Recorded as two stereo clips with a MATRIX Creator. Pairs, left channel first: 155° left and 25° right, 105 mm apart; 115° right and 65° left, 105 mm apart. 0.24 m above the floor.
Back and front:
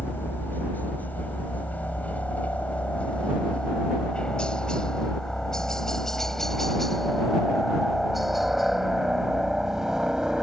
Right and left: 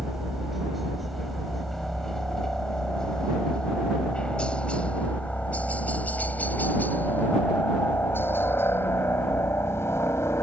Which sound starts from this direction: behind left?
A helicopter, at 0.0 s.